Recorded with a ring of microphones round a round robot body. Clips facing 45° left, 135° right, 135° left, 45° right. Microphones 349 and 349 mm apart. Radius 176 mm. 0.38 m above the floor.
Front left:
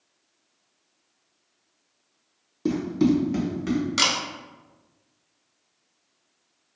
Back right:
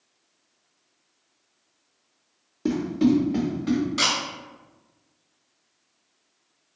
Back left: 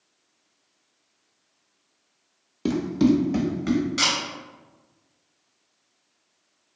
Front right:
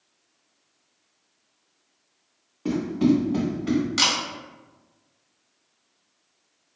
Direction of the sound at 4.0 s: 20° left.